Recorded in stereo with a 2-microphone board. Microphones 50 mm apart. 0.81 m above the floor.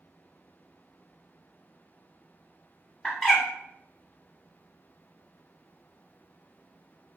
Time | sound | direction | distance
3.0 | a bird | 10° left (ahead or behind) | 1.2 m